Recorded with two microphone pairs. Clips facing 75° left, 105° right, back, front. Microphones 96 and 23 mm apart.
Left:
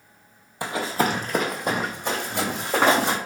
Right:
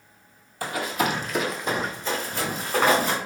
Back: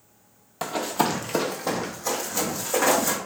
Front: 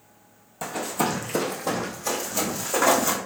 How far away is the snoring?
No snoring in this recording.